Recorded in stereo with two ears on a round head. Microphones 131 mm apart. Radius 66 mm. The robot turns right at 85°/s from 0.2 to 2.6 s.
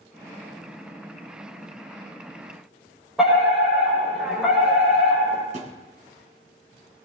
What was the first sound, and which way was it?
A fire alarm, centre (ahead or behind).